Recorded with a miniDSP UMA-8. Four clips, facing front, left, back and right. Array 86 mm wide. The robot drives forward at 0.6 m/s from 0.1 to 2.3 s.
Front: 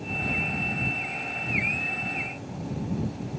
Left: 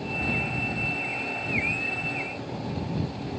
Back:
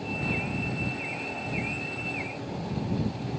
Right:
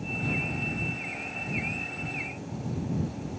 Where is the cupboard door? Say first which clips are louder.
Left 1 dB, even; 105° left, 2.5 m; by 0.4 s 110° left, 2.5 m.